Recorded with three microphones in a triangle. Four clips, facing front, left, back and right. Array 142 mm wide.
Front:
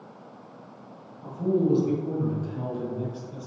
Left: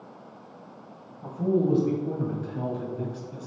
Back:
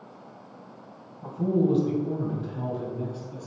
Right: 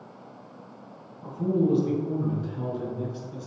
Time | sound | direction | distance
1.2 | a man speaking | 125° left | 1.8 m